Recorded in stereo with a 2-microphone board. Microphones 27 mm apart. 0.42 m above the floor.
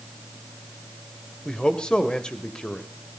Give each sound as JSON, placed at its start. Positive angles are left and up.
{"t": 1.4, "sound": "a man speaking", "side_deg": 30, "distance_m": 1.3}